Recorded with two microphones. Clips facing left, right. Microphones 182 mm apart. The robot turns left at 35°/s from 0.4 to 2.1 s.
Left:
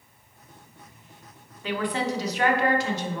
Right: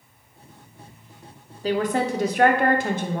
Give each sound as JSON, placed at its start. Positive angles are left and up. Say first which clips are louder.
{"t": 1.6, "sound": "a woman speaking", "louder": "right 5 dB", "side_deg": -35, "distance_m": 0.9}